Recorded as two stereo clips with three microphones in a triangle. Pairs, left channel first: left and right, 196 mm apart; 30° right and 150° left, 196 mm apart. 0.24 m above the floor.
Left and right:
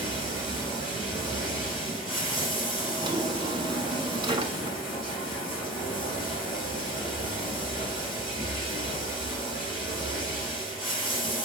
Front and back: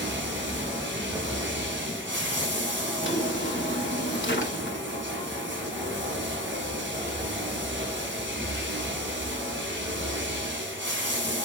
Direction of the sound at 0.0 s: 135° left.